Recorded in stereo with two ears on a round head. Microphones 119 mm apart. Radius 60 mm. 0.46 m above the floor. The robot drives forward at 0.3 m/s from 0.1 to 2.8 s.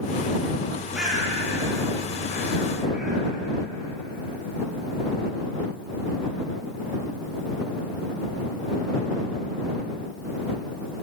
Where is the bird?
5° right (ahead or behind), 4 m; by 3.2 s 10° right (ahead or behind), 3 m.